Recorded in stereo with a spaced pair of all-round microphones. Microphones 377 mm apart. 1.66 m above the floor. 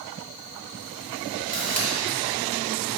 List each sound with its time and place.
1.5 s a camera shutter: 20° right (ahead or behind), 2.5 m